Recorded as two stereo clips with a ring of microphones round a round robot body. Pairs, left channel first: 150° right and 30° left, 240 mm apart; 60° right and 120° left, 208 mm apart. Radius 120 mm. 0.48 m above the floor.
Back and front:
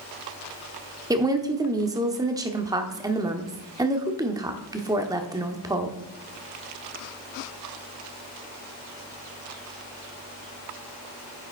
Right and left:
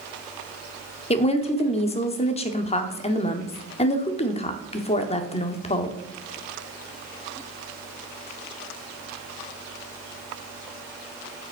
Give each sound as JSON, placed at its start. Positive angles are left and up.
{"t": 1.1, "sound": "a woman speaking", "azimuth_deg": -35, "distance_m": 0.9}